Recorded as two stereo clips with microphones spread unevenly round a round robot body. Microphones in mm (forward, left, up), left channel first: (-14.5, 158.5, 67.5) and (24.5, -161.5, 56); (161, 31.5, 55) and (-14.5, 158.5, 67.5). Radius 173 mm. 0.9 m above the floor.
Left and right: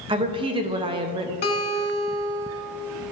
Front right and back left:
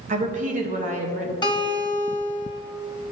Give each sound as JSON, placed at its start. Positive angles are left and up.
{"t": 0.1, "sound": "a woman speaking", "azimuth_deg": -155, "distance_m": 0.6}
{"t": 1.4, "sound": "a guitar", "azimuth_deg": 35, "distance_m": 1.5}